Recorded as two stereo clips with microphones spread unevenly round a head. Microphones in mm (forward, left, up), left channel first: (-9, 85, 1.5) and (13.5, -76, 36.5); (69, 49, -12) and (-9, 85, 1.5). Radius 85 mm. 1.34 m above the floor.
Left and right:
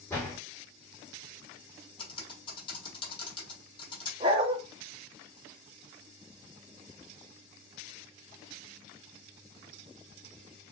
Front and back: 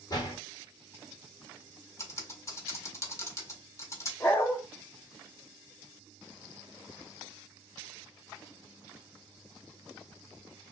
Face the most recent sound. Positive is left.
turn(degrees=-95)